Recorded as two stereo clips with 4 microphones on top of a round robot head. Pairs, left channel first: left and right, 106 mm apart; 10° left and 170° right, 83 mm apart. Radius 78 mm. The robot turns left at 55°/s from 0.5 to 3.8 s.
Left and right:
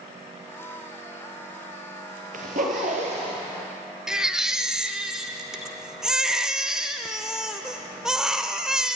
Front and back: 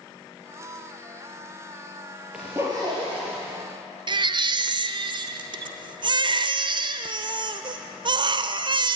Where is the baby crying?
175° right, 1.0 m.